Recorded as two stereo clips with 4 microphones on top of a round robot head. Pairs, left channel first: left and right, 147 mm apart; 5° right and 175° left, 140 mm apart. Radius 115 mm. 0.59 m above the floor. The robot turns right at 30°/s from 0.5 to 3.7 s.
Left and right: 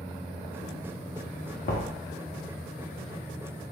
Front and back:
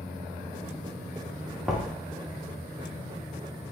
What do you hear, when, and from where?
1.6 s knocking: 85° left, 1.3 m; by 2.0 s 95° left, 1.3 m